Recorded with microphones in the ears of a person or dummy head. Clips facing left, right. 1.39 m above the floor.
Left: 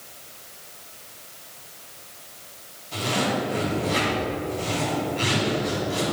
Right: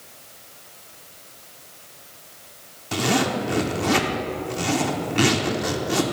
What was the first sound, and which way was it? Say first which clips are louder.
A zipper: right 3 dB; 80° right.